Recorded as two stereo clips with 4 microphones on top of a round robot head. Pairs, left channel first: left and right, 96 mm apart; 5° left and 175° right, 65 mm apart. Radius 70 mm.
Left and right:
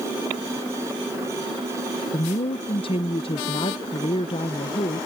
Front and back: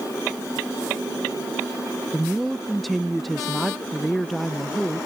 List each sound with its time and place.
2.1 s a woman speaking: 90° left